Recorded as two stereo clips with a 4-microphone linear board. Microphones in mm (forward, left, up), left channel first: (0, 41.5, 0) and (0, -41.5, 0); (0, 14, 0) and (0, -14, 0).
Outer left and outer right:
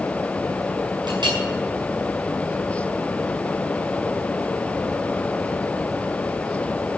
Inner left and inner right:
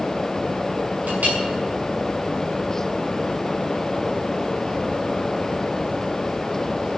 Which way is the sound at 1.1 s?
70° right (ahead or behind).